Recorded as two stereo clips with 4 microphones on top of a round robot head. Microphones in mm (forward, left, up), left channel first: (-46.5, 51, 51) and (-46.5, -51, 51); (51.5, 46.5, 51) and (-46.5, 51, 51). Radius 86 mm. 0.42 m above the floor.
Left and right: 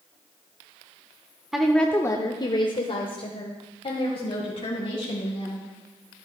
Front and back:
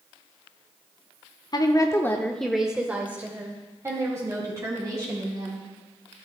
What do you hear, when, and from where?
1.5 s a woman speaking: 5° right, 1.0 m; by 5.6 s 120° left, 3.5 m